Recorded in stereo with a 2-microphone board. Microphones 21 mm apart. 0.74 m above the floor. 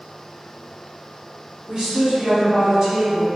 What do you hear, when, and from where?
1.7 s a woman speaking: 40° right (ahead or behind), 1.2 m; by 3.3 s 30° right (ahead or behind), 1.2 m